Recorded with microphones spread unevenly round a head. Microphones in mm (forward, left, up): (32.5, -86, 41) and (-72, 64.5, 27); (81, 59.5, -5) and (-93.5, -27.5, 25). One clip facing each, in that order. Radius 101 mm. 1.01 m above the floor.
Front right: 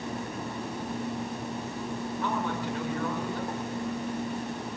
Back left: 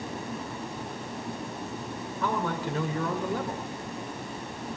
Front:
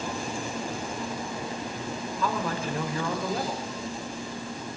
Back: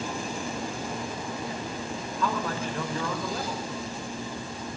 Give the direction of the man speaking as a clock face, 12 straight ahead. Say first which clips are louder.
Back left 3 dB, even; 8 o'clock.